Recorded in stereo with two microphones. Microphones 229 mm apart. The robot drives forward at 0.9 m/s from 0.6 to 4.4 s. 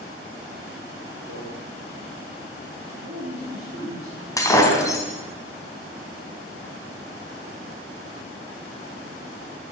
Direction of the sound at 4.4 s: 15° left (ahead or behind).